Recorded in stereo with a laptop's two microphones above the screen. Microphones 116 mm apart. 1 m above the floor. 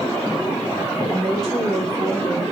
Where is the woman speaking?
5° left (ahead or behind), 3 m.